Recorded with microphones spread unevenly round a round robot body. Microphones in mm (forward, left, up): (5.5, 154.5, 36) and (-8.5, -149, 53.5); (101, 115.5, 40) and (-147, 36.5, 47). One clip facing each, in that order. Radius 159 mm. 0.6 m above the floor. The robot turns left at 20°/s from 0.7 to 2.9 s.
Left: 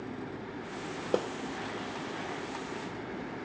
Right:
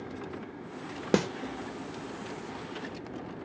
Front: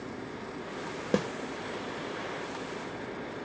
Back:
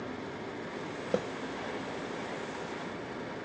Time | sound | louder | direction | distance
1.1 | a snare drum | right 4 dB, front 3 dB | 45° right | ?